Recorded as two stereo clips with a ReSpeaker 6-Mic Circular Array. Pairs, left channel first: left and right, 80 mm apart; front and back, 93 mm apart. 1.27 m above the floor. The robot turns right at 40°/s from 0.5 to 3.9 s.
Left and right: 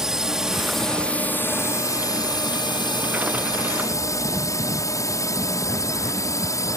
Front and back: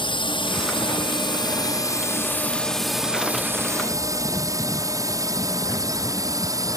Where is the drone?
10° right; by 6.8 s 135° left.